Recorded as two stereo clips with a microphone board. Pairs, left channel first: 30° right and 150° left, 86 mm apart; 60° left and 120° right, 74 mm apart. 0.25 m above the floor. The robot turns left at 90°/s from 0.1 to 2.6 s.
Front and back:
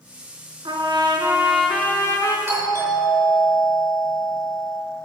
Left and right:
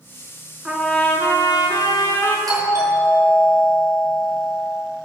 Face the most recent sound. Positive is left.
turn(degrees=-165)